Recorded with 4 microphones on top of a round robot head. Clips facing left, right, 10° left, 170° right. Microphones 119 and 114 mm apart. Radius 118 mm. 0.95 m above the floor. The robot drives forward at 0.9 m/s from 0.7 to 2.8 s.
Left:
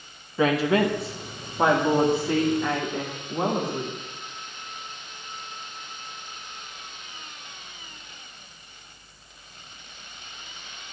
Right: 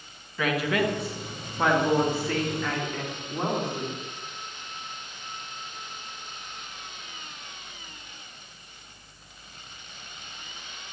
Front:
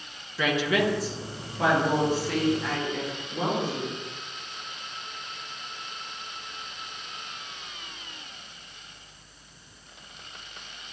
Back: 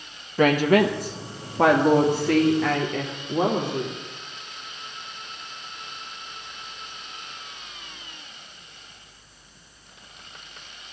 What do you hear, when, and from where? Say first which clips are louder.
0.4 s a woman speaking: left 5 dB, back 7 dB; 150° left, 1.5 m; by 4.0 s 170° left, 3 m